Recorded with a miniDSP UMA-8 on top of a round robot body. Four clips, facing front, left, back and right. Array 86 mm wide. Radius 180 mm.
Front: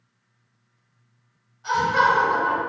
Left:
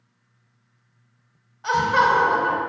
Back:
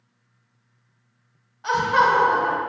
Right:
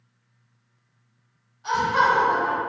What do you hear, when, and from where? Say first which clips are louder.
1.6 s laughter: left 2 dB, back 1 dB; 130° left, 0.8 m